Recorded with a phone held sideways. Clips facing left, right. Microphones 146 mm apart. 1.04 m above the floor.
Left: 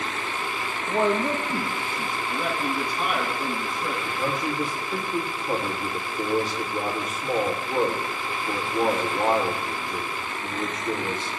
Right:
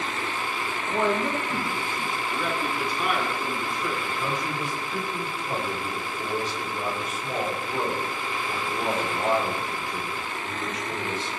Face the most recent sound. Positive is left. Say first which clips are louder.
# left 2 dB
turn(degrees=60)  # may be behind; listen again after turning